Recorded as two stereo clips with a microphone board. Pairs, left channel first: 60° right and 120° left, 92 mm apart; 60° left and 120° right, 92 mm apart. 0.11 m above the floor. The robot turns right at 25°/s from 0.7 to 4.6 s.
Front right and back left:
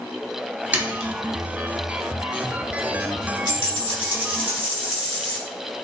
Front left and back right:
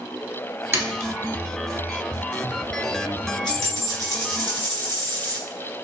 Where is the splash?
175° right, 0.9 m; by 1.1 s 165° right, 0.9 m.